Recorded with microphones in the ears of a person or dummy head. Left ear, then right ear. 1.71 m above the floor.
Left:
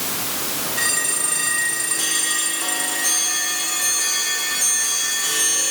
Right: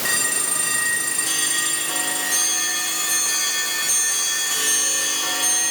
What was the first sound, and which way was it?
Only background noise.